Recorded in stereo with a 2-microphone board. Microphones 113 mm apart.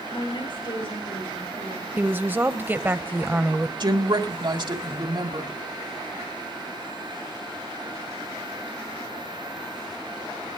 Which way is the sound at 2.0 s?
20° right (ahead or behind).